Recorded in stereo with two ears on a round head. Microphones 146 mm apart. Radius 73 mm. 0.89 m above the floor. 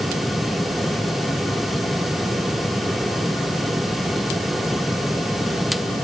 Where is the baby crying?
No baby crying in this recording.